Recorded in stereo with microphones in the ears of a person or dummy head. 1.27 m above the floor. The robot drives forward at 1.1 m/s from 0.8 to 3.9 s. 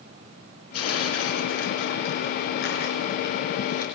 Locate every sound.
0.7 s tearing paper: 80° left, 4.5 m; by 3.9 s 50° left (ahead or behind), 6 m